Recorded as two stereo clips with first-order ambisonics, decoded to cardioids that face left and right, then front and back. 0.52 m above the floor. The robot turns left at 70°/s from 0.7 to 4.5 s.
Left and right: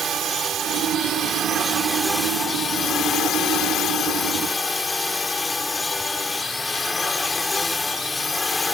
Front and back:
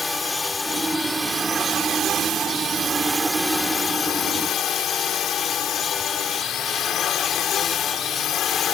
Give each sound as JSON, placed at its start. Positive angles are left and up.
{"t": 0.0, "sound": "a drone", "azimuth_deg": -75}